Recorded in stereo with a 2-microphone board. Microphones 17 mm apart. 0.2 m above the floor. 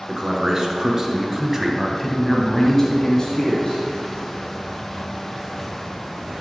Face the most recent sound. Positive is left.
turn(degrees=40)  # may be behind; listen again after turning